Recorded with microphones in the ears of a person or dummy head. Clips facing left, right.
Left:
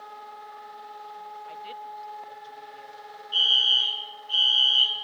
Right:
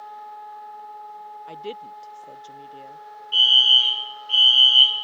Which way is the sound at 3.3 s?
35° right (ahead or behind).